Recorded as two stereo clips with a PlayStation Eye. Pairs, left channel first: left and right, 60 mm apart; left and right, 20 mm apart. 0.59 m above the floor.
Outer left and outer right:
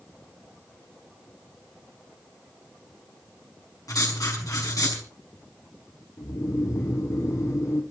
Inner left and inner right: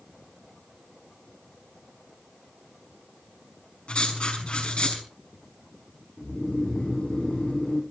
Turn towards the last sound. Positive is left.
turn(degrees=70)  # may be behind; listen again after turning